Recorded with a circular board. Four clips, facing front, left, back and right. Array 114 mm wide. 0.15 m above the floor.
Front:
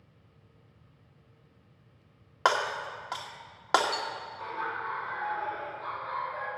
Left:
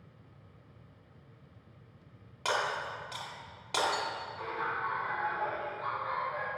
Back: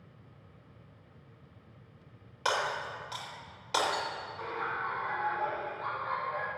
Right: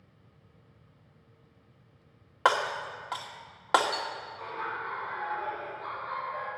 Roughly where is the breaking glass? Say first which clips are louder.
Right 6 dB, front 4 dB; ahead right.